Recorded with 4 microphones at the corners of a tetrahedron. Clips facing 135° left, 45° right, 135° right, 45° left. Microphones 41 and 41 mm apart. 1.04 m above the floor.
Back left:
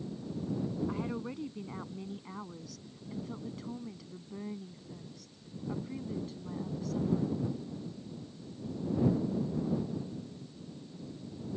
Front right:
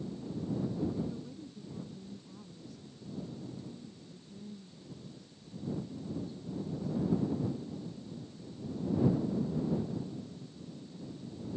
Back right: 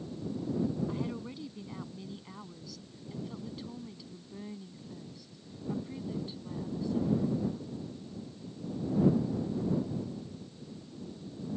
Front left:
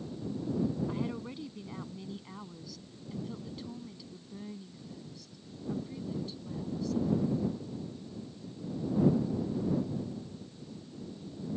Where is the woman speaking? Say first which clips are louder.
Back left 2 dB, front left 1 dB; 125° left; by 7.4 s 160° left.